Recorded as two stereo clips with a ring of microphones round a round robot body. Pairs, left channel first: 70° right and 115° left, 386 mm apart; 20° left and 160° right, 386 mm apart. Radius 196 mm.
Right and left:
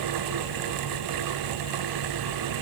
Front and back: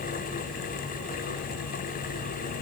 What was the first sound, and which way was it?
Only background noise.